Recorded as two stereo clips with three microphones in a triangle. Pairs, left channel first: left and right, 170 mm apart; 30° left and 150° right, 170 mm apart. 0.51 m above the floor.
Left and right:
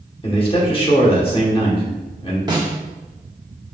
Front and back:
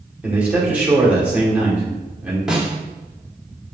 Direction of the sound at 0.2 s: 130° left.